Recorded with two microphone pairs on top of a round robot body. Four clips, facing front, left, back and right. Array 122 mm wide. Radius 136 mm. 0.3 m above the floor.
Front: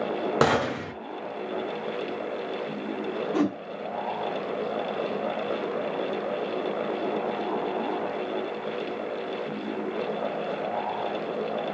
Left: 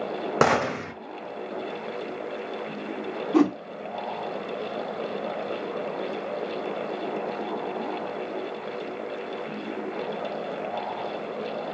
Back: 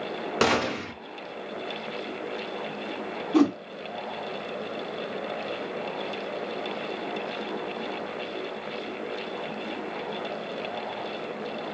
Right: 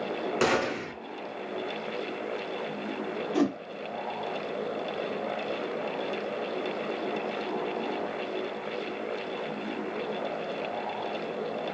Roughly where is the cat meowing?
I don't hear a cat meowing.